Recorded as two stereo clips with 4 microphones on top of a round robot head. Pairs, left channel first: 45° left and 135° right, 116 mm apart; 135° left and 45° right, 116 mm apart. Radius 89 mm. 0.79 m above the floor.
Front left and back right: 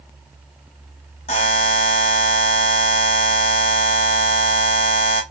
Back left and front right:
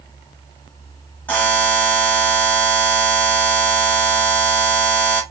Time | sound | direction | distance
1.3 | a buzzer | 60° left | 0.6 m